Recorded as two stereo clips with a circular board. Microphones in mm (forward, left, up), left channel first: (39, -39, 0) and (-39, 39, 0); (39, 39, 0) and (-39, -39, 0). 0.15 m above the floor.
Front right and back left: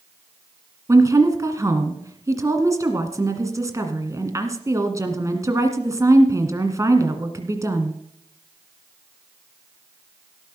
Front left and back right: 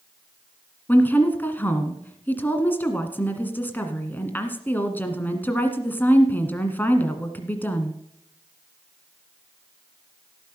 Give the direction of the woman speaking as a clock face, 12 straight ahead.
9 o'clock.